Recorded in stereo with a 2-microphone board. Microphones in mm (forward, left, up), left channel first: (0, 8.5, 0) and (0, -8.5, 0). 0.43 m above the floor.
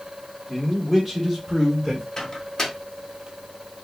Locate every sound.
0.5 s a man speaking: 10° left (ahead or behind), 1.1 m; by 2.1 s 15° right (ahead or behind), 1.5 m
2.2 s a microwave: 30° left (ahead or behind), 0.7 m